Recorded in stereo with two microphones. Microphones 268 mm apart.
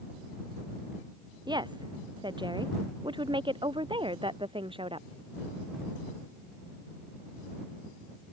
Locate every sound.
1.5 s a woman speaking: 15° right (ahead or behind); by 5.1 s 20° right (ahead or behind)